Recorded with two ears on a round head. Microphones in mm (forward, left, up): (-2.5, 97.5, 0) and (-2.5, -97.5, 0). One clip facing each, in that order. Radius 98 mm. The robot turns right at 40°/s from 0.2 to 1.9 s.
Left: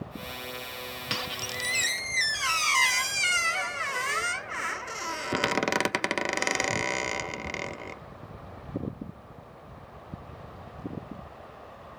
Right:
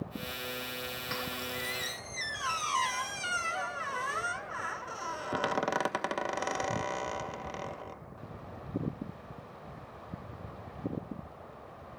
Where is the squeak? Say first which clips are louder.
Left 1 dB; 100° left, 0.5 m; by 8.0 s 130° left, 0.5 m.